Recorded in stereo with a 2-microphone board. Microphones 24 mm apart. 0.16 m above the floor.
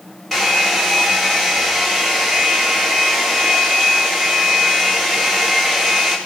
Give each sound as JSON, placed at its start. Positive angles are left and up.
{"t": 0.3, "sound": "a hair dryer", "side_deg": 10, "distance_m": 9.0}